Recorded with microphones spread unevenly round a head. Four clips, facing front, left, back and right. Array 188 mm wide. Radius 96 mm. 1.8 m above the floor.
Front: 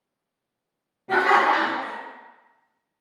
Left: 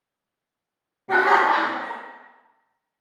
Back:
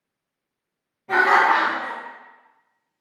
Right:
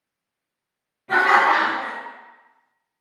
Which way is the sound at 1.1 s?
55° left.